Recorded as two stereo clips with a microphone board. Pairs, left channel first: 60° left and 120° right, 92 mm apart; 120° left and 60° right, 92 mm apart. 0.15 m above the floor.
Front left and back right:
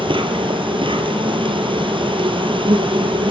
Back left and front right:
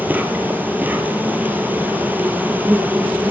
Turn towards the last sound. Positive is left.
turn(degrees=-130)